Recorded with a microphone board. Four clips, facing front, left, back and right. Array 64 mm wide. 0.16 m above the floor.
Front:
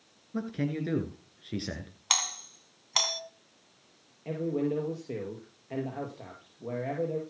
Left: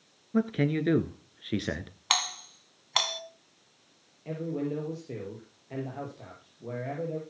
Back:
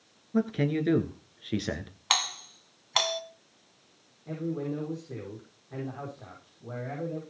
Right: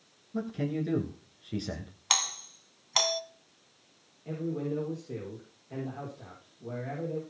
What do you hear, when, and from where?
0.3 s a man speaking: 105° left, 2 m
2.1 s a doorbell: 130° left, 1.7 m
4.2 s a man speaking: 25° left, 4.5 m